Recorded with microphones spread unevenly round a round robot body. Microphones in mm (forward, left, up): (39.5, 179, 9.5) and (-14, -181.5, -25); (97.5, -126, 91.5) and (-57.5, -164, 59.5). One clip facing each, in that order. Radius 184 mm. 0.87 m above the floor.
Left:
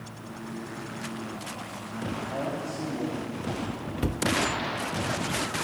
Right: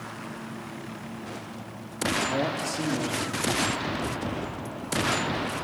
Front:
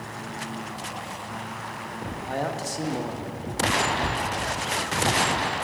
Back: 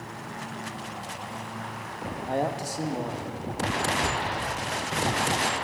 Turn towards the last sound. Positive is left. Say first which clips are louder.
# left 3 dB, front 1 dB
turn(degrees=110)